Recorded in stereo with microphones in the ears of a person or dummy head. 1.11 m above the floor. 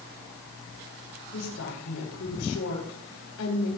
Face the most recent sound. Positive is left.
turn(degrees=80)